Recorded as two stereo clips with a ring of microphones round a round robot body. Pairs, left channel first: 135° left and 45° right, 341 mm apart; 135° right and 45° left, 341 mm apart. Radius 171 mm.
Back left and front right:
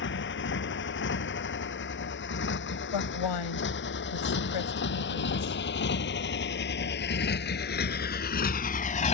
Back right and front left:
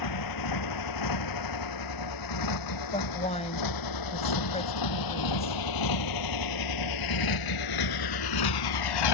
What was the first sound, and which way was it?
A motorcycle, 165° right.